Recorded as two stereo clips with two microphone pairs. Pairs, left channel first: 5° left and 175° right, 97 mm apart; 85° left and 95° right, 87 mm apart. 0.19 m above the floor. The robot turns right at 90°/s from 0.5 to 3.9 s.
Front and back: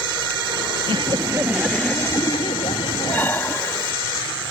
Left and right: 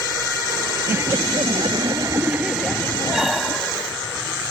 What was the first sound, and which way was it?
Laughter, 160° right.